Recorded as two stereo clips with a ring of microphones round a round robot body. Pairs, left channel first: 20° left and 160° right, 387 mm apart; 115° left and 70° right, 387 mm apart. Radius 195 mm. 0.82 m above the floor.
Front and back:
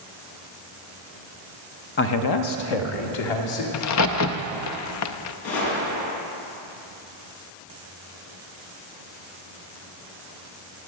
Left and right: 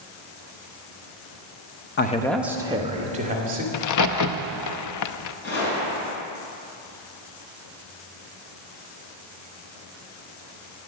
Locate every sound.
2.0 s a man speaking: 70° left, 0.7 m; by 3.6 s straight ahead, 2.5 m
3.7 s a crack: 70° left, 0.6 m
5.4 s a gunshot: 50° left, 5 m